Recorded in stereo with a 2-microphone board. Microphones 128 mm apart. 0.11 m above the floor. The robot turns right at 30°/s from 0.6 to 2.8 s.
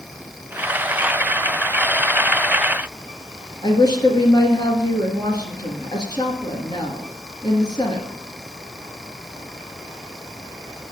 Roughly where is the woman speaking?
Left.